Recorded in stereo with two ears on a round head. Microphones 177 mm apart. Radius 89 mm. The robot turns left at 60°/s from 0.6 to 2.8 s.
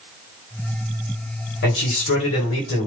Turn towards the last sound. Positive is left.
turn(degrees=50)